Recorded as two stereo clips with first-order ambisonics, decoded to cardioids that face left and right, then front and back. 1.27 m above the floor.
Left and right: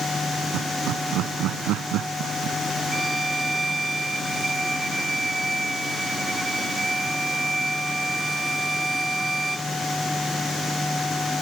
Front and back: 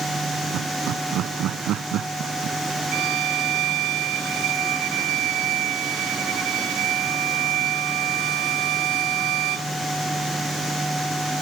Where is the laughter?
130° right.